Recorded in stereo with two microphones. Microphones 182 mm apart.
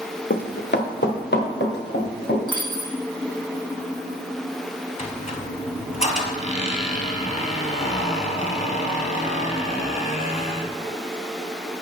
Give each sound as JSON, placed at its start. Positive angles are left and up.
{"t": 0.3, "sound": "running footsteps", "side_deg": 70, "distance_m": 0.9}
{"t": 2.5, "sound": "a dropped coin", "side_deg": 25, "distance_m": 1.7}
{"t": 5.0, "sound": "a squeak", "side_deg": 45, "distance_m": 0.9}